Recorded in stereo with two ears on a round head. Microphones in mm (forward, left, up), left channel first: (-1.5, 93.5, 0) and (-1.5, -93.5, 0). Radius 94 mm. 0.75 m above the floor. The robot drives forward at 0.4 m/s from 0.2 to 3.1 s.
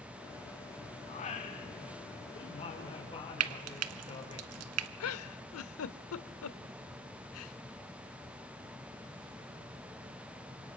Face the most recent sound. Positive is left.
turn(degrees=80)